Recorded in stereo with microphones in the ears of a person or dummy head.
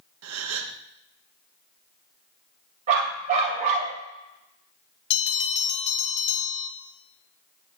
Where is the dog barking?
40° right (ahead or behind), 2.5 m.